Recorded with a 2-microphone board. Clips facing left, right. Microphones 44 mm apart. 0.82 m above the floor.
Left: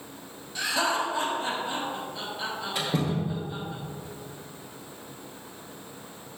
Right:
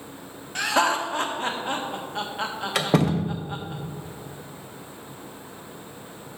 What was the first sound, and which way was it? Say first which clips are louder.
Laughter: right 4 dB; 55° right (ahead or behind).